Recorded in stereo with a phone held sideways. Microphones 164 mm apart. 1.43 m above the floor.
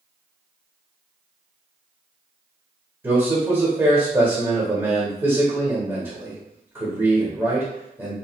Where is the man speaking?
15° right (ahead or behind), 1.0 m.